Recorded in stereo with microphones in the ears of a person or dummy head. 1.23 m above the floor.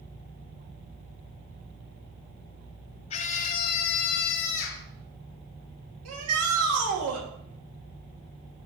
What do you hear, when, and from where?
3.1 s a scream: 40° left (ahead or behind), 0.9 m; by 4.9 s 85° left, 1.3 m
6.0 s a shout: 80° right, 2.5 m